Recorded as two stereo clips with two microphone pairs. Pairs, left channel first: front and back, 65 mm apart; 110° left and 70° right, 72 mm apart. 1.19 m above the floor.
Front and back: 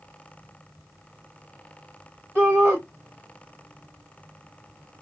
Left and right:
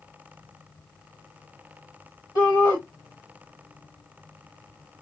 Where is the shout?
115° left, 1.9 m.